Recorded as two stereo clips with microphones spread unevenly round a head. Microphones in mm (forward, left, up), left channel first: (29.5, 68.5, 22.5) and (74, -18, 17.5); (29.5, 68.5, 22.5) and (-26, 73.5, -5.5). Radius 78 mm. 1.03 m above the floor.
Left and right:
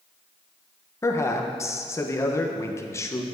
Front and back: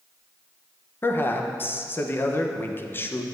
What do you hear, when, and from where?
1.0 s a man speaking: 60° left, 0.8 m